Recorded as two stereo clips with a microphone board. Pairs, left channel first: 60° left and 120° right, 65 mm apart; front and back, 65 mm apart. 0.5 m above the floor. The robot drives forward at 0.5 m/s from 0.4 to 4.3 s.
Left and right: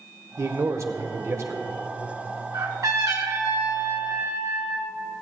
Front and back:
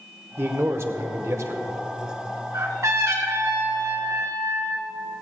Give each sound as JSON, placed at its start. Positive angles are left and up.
{"t": 0.4, "sound": "a man speaking", "azimuth_deg": -140, "distance_m": 1.1}
{"t": 2.5, "sound": "a trumpet", "azimuth_deg": -145, "distance_m": 2.0}